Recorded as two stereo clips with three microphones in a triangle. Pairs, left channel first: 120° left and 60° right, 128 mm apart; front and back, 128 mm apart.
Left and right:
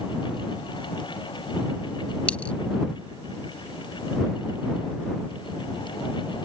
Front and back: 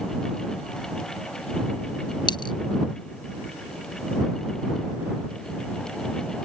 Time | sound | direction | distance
2.3 | a dropped coin | 45° left | ?